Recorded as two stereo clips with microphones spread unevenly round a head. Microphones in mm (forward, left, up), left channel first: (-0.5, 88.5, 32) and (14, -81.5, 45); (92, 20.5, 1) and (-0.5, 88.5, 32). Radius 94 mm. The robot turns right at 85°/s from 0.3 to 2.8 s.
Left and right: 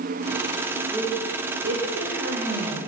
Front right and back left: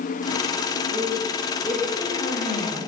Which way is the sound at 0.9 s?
175° right.